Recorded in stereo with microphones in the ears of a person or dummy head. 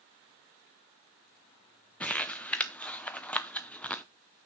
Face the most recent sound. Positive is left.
turn(degrees=10)  # may be behind; listen again after turning